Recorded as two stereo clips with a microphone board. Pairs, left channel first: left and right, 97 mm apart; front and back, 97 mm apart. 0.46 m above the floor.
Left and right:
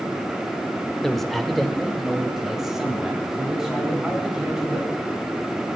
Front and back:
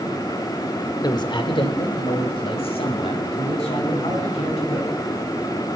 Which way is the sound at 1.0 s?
5° left.